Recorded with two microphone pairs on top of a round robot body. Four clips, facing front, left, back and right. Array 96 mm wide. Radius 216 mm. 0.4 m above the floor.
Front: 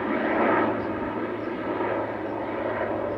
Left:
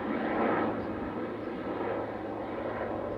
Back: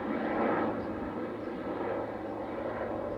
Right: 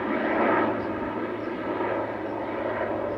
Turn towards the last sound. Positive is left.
turn(degrees=-35)